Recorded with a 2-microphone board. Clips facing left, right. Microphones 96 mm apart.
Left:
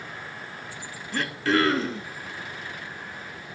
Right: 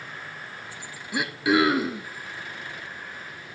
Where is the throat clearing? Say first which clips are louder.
Right 2 dB; 10° right (ahead or behind), 1.3 m.